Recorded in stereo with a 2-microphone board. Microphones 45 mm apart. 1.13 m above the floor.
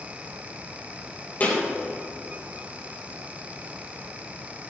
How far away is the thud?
About 3 m.